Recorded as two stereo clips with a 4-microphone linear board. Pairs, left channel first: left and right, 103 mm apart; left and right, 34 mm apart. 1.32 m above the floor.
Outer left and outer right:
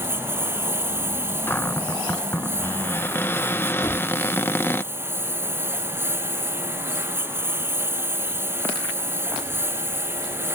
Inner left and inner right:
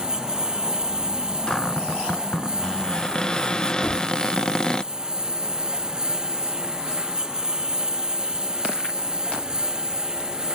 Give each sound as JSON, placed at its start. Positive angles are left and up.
{"t": 0.0, "sound": "a lawn mower", "side_deg": -20}
{"t": 1.5, "sound": "a cupboard door", "side_deg": 20}
{"t": 3.8, "sound": "a gunshot", "side_deg": 40}